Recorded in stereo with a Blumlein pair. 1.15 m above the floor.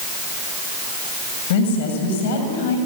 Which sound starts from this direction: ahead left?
A woman speaking, at 1.5 s.